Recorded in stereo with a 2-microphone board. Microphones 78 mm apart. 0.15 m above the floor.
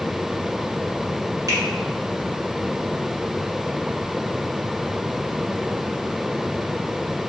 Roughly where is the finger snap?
Right.